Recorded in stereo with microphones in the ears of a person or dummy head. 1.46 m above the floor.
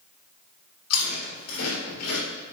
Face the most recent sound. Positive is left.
turn(degrees=55)  # may be behind; listen again after turning